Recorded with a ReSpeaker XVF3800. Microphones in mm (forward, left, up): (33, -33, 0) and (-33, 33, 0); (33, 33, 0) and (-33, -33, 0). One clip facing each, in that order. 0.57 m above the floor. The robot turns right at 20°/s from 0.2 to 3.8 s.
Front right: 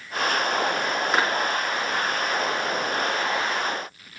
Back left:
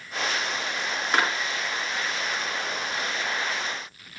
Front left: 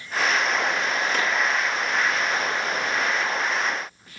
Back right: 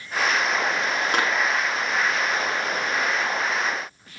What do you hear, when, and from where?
1.1 s a clap: 130° right, 6 m; by 1.4 s 125° right, 6 m